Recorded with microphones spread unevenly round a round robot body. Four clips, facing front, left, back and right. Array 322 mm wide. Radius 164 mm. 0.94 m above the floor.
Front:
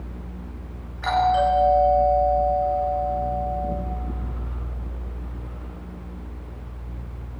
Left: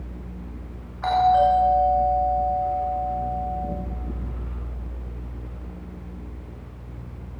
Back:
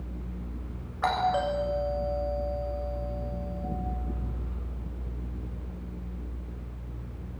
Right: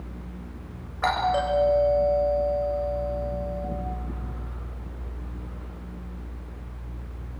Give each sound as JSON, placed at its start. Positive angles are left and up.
{"t": 1.0, "sound": "a doorbell", "azimuth_deg": -135, "distance_m": 7.5}